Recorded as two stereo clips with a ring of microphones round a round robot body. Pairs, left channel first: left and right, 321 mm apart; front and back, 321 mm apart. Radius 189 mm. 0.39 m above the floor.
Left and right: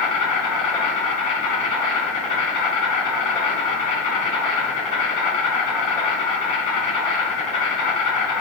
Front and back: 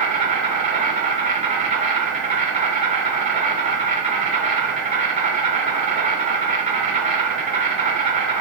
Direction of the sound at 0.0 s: 115° left.